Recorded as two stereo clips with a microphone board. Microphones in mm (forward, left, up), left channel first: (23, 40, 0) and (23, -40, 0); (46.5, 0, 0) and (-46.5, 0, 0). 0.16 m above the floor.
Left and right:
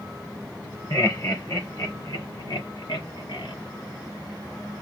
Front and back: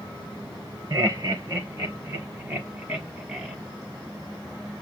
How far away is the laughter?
About 2 m.